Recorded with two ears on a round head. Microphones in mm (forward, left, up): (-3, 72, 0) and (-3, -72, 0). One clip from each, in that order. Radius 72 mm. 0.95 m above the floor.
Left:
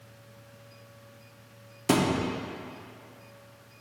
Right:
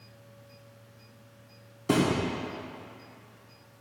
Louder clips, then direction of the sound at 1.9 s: Left 1 dB; 55° left (ahead or behind).